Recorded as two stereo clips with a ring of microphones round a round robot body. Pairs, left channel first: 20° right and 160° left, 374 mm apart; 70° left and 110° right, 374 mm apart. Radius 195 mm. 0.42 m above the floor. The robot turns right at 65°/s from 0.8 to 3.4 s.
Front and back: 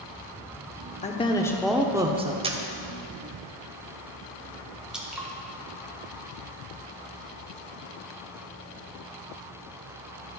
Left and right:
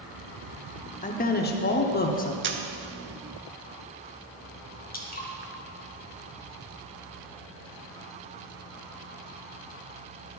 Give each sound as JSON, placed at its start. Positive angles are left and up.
{"t": 1.0, "sound": "a woman speaking", "azimuth_deg": 25, "distance_m": 0.8}
{"t": 2.4, "sound": "a camera shutter", "azimuth_deg": -140, "distance_m": 0.8}
{"t": 4.9, "sound": "dripping", "azimuth_deg": 70, "distance_m": 1.1}